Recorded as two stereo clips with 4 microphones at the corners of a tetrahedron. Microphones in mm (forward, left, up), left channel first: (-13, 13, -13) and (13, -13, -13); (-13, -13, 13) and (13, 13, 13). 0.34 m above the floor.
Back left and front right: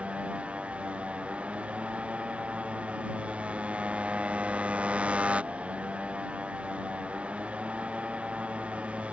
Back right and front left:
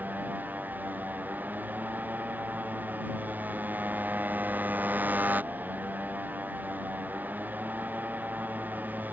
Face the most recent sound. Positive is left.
turn(degrees=10)